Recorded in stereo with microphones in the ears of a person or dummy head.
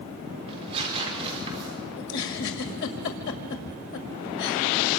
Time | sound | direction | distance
0.5 | tearing paper | 30° right (ahead or behind) | 5.5 m
2.0 | a giggle | 60° left (ahead or behind) | 2.0 m